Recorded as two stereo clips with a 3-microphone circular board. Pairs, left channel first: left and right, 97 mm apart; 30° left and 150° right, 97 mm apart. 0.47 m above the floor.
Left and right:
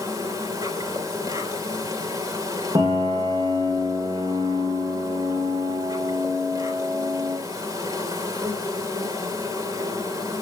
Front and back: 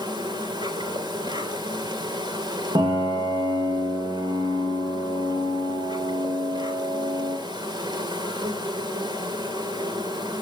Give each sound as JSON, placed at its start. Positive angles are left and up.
{"t": 0.0, "sound": "an insect", "azimuth_deg": -135, "distance_m": 3.0}
{"t": 2.8, "sound": "a piano", "azimuth_deg": -125, "distance_m": 6.5}